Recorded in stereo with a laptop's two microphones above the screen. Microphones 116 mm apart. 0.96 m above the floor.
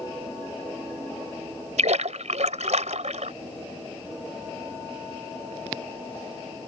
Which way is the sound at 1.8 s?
80° right.